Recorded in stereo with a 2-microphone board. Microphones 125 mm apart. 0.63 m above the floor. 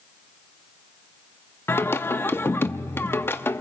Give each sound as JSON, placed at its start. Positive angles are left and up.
{"t": 1.7, "sound": "singing", "side_deg": 20, "distance_m": 0.6}